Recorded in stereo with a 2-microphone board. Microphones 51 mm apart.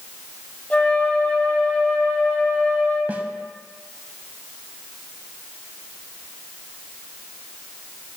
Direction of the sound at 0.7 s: 25° left (ahead or behind).